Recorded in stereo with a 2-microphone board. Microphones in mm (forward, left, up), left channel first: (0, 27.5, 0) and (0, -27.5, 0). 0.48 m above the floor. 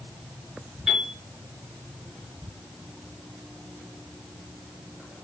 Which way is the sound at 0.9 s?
5° right (ahead or behind).